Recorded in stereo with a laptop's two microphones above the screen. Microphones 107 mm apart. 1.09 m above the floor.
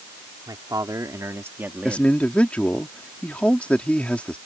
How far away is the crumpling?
No crumpling in this recording.